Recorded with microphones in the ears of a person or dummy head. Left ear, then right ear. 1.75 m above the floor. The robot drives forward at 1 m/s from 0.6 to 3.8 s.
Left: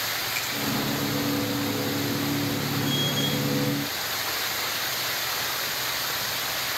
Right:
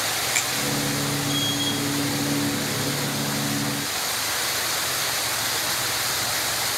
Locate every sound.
0.3 s a finger snap: 20° right (ahead or behind), 4 m